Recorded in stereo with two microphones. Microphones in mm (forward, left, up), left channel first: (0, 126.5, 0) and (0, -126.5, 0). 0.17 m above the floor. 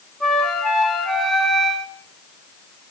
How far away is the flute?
About 1.6 m.